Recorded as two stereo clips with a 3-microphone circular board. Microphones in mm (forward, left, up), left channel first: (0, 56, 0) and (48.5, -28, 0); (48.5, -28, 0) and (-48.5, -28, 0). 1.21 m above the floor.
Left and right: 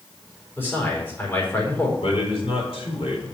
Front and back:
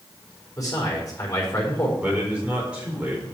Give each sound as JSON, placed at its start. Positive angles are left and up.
{"t": 0.6, "sound": "a man speaking", "azimuth_deg": 55, "distance_m": 4.5}
{"t": 2.0, "sound": "a man speaking", "azimuth_deg": 105, "distance_m": 4.5}